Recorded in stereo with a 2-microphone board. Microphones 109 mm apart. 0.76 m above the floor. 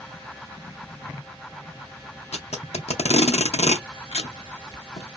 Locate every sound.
2.3 s tape being pulled: 75° left (ahead or behind), 0.5 m